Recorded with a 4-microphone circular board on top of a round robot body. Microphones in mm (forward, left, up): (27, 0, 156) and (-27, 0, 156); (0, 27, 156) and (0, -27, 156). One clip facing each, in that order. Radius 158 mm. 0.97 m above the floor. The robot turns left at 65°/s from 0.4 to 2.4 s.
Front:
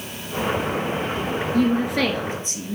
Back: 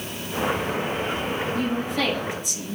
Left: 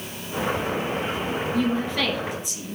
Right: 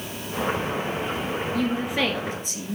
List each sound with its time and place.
1.5 s a woman speaking: 10° left, 2 m; by 2.8 s 45° right, 2 m